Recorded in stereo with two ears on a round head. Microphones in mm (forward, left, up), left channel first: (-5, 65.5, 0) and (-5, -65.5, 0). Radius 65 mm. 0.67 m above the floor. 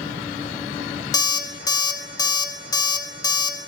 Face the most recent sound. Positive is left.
turn(degrees=25)  # may be behind; listen again after turning